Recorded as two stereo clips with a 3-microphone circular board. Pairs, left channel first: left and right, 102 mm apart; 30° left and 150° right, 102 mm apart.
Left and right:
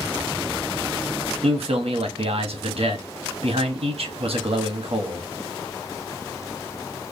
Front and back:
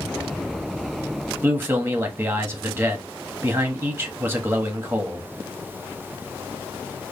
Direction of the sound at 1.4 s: 85° right.